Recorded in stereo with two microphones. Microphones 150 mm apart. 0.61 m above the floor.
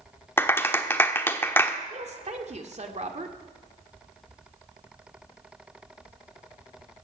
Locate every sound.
0.4 s a clap: 15° left (ahead or behind), 1.1 m
1.9 s a woman speaking: 50° right (ahead or behind), 1.8 m